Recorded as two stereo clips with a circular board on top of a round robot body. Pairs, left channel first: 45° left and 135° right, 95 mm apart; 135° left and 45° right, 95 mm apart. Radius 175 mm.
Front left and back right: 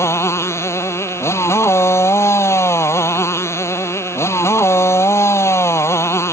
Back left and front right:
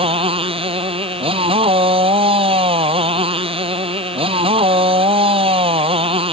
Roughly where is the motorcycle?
Ahead.